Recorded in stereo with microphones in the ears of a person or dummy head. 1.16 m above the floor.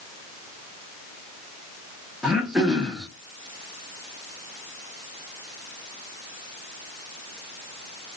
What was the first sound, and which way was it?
Throat clearing, 5° right (ahead or behind).